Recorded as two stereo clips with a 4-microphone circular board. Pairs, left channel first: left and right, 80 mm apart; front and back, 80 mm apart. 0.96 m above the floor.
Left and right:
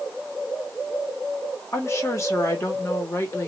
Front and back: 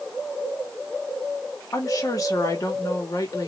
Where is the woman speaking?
40° left, 1.2 m.